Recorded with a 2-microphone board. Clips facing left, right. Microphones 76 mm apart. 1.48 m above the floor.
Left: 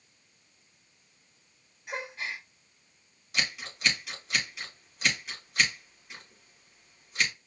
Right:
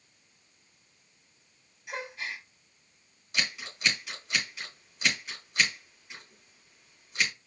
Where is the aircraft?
I don't hear an aircraft.